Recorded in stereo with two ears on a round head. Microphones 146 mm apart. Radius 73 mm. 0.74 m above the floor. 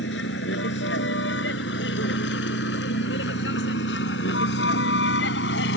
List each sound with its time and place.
0.0 s a vehicle: 85° left; by 5.8 s 80° left